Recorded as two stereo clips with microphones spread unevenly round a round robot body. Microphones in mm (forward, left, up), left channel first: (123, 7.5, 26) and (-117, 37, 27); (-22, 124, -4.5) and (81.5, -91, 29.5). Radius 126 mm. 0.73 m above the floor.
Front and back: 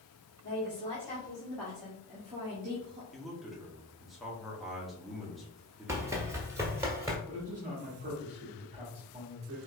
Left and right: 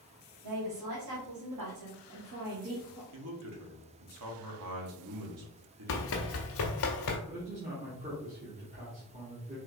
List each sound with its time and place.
0.4 s a woman speaking: 65° right, 2 m; by 3.0 s 145° right, 1.3 m
3.1 s a man speaking: 95° right, 1.3 m
5.9 s running footsteps: 100° left, 0.8 m; by 7.2 s 95° left, 1.3 m
7.3 s a man speaking: 130° right, 1.5 m